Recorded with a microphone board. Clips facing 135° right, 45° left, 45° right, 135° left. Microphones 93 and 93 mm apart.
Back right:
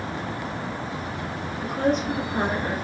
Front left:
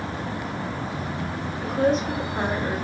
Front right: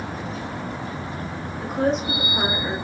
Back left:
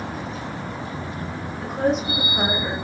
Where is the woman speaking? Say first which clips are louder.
Front left 2 dB, even; 30° left, 1.9 m; by 2.7 s 120° left, 1.6 m.